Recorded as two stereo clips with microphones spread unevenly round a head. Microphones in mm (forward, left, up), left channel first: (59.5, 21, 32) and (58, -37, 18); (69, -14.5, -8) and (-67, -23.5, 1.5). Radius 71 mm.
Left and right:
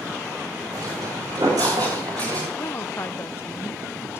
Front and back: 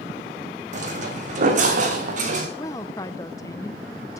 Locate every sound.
0.7 s footsteps: 145° right, 3.5 m
2.6 s a woman speaking: 50° left, 0.6 m